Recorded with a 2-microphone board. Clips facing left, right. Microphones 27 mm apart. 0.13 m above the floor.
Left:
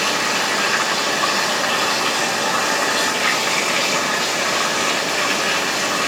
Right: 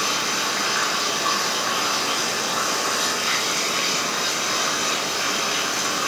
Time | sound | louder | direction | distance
0.0 | running water | left 4 dB | 85° left | 7.5 m